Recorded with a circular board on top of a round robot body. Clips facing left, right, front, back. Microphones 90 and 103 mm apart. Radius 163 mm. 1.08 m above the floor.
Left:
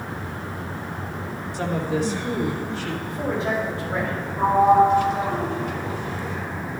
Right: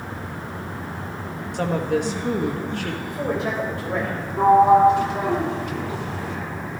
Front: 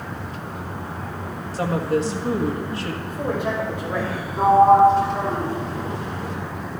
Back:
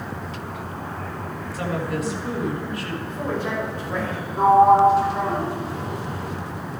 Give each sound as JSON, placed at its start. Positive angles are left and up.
{"t": 1.5, "sound": "a woman speaking", "azimuth_deg": -60, "distance_m": 1.7}
{"t": 3.1, "sound": "a man speaking", "azimuth_deg": -75, "distance_m": 5.5}
{"t": 4.4, "sound": "a sliding door", "azimuth_deg": -95, "distance_m": 2.0}